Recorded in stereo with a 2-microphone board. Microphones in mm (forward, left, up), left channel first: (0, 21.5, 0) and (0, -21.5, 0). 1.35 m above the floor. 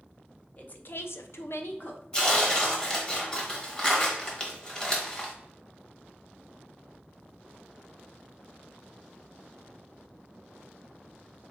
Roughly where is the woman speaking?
Left.